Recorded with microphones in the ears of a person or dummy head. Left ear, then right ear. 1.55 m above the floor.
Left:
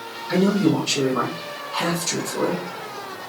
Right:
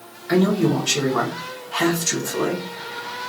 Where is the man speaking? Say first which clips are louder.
Right 1 dB; 45° right (ahead or behind), 1.3 m.